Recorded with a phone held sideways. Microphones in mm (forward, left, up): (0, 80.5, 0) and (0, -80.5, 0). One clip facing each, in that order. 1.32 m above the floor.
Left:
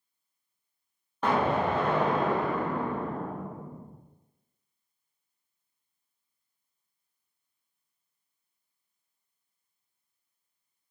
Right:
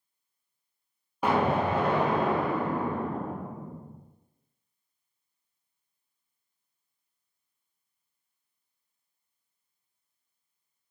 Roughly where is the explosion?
Centre.